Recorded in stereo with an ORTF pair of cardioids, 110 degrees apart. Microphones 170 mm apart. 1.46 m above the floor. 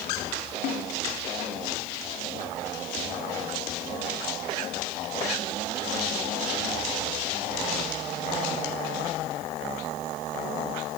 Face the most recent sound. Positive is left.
turn(degrees=70)